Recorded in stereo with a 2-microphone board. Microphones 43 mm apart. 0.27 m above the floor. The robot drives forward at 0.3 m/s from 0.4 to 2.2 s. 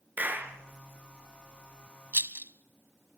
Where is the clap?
40° right (ahead or behind), 4 m.